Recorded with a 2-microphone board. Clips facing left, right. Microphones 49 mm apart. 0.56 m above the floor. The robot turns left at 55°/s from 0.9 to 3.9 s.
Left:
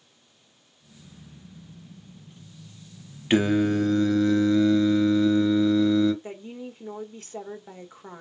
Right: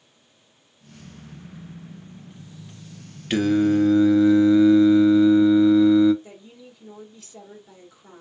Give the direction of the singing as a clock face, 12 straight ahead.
11 o'clock.